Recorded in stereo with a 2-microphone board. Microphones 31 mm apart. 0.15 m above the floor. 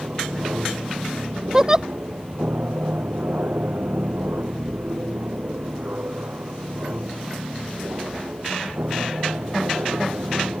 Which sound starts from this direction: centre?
A giggle, at 1.5 s.